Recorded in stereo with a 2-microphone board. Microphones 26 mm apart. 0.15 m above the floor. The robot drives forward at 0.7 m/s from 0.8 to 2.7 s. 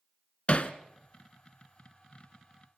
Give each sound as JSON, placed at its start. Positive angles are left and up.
{"t": 0.5, "sound": "hammering", "side_deg": 50, "distance_m": 0.9}